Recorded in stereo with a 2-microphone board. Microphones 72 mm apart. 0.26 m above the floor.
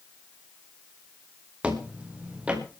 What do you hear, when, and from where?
1.6 s footsteps: 15° right (ahead or behind), 3.5 m